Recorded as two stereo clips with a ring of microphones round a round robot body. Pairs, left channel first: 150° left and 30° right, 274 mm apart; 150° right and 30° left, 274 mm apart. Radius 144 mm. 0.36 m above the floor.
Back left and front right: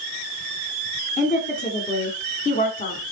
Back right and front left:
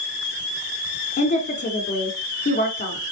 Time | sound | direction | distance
1.2 | a woman speaking | straight behind | 1.3 m